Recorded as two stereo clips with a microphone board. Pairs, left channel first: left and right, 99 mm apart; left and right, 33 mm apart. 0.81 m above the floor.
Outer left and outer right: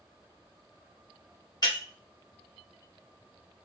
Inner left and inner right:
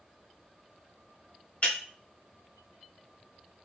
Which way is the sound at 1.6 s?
45° left (ahead or behind).